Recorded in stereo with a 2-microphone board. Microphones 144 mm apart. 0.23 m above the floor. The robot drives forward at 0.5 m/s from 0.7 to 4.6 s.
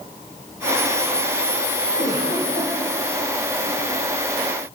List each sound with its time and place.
2.0 s a giggle: 50° left (ahead or behind), 9 m; by 2.7 s 45° left (ahead or behind), 9 m